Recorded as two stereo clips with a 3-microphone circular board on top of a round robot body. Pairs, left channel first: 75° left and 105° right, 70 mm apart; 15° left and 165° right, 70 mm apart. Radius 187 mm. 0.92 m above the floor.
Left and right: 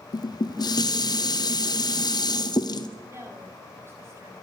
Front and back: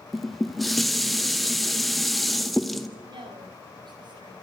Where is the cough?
I don't hear a cough.